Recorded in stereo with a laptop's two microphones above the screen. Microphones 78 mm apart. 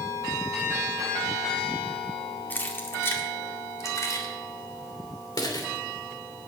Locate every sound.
2.5 s keys jangling: 25° left (ahead or behind), 2 m; by 6.5 s 65° left (ahead or behind), 3 m